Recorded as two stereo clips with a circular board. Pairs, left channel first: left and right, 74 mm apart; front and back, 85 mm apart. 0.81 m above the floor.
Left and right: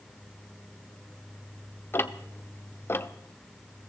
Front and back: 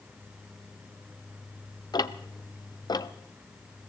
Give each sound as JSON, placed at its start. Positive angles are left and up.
{"t": 1.9, "sound": "ticking", "azimuth_deg": 35, "distance_m": 0.7}